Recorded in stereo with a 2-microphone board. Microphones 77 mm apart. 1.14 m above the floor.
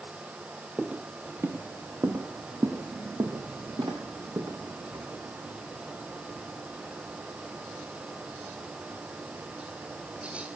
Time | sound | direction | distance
0.8 | footsteps | 20° right (ahead or behind) | 1.4 m